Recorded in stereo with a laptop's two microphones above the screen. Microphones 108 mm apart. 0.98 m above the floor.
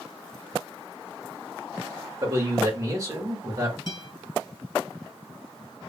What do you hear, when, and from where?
2.2 s a man speaking: 30° right (ahead or behind), 1.0 m
3.9 s a guitar: 45° left (ahead or behind), 1.3 m